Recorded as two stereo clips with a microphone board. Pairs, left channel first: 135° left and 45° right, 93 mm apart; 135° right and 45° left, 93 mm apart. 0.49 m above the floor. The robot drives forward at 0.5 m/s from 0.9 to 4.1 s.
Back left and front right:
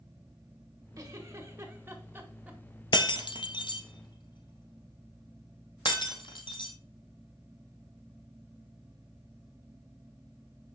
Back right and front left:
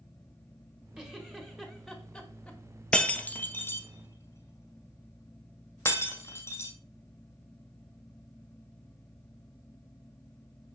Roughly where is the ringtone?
I don't hear a ringtone.